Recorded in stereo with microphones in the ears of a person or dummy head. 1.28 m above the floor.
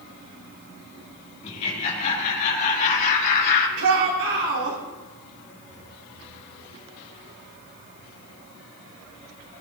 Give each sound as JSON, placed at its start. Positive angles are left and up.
{"t": 1.4, "sound": "laughter", "side_deg": 35, "distance_m": 5.0}
{"t": 3.8, "sound": "a shout", "side_deg": -80, "distance_m": 3.5}